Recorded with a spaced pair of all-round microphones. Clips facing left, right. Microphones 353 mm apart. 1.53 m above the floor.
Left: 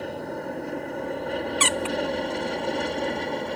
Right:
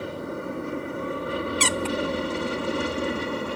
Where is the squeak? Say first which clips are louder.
Right 1 dB; 55° right (ahead or behind).